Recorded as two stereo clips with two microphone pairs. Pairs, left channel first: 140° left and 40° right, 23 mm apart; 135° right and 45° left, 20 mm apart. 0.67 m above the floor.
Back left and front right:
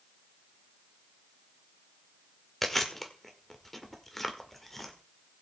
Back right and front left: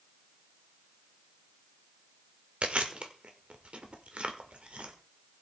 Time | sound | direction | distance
2.6 | chewing | 65° left | 1.7 m